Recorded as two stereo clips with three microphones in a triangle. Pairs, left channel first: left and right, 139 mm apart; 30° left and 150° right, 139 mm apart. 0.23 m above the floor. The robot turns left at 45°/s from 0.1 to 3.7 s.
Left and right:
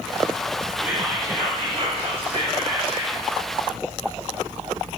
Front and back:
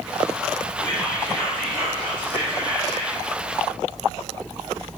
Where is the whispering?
20° right, 1.8 m; by 3.2 s 130° right, 1.8 m.